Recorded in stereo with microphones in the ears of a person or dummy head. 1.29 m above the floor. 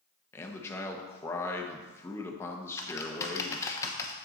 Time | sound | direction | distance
0.3 | a man speaking | 15° left (ahead or behind) | 1.1 m
2.8 | typing on a keyboard | 20° left (ahead or behind) | 0.9 m